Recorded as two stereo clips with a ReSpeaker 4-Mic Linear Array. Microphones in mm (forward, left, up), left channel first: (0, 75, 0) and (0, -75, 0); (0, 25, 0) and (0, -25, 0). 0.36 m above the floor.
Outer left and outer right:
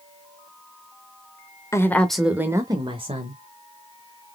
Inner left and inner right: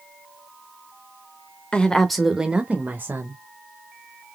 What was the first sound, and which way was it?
A woman speaking, 20° left (ahead or behind).